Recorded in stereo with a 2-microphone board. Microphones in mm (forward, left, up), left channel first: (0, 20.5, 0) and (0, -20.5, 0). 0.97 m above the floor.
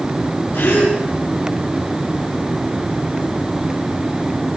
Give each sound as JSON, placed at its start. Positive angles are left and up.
{"t": 0.5, "sound": "a gasp", "side_deg": 85, "distance_m": 6.5}